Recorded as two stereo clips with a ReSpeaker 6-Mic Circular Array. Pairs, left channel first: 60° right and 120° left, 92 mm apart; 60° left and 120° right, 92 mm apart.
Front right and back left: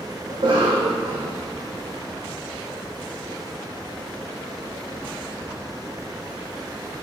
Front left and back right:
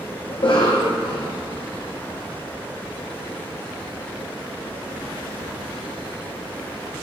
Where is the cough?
95° left, 0.7 m.